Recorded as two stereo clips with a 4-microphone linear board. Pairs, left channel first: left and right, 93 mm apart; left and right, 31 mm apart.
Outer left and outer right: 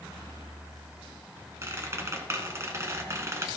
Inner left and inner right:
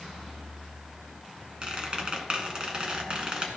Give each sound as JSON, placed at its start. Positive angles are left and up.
{"t": 1.6, "sound": "a squeak", "side_deg": -30, "distance_m": 1.6}